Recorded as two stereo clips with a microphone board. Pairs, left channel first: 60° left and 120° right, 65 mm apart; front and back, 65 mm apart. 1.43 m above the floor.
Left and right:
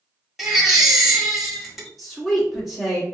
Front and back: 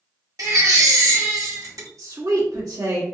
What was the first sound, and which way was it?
A baby crying, 155° left.